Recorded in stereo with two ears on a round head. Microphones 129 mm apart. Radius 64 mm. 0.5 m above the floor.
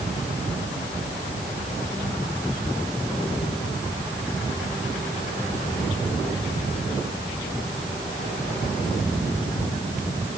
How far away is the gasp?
No gasp in this recording.